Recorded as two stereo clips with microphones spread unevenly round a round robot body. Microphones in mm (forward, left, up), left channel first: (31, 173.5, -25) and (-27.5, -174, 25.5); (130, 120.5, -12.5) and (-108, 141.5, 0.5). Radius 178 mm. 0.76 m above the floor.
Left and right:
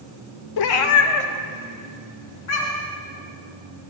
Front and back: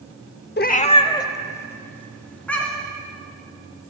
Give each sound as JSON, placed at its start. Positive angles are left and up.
{"t": 0.6, "sound": "a cat meowing", "azimuth_deg": 45, "distance_m": 0.6}